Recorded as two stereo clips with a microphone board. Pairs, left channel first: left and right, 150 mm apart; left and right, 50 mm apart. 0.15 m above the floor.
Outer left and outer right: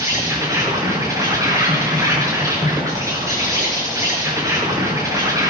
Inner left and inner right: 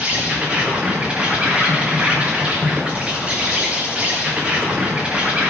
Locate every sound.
0.0 s an insect: 20° right (ahead or behind), 2.5 m